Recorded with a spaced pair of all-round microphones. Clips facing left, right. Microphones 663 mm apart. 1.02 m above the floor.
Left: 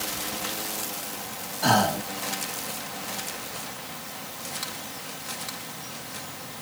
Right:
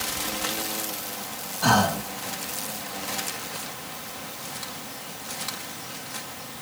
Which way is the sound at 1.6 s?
35° right (ahead or behind).